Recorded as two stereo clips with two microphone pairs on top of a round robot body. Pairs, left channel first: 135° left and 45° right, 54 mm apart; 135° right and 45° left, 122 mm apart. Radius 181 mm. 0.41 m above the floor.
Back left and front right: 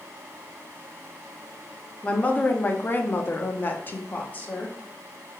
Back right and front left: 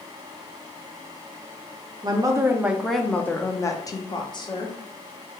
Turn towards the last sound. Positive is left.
turn(degrees=-165)